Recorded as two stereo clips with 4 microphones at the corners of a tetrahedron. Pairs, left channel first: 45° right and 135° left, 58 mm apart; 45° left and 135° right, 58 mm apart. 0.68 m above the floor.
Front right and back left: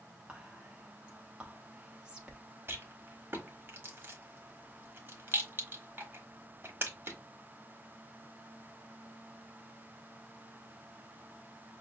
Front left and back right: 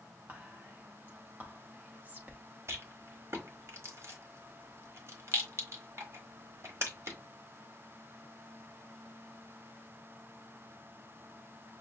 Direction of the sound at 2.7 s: 175° right.